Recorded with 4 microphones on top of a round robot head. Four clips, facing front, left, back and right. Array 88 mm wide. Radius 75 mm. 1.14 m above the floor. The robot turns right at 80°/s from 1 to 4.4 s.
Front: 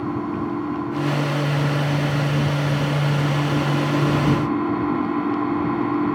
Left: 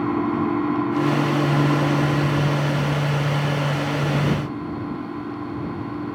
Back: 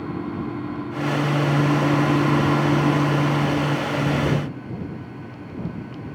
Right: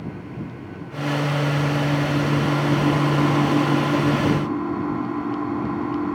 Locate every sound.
0.0 s an engine running: 70° left; by 6.2 s 20° right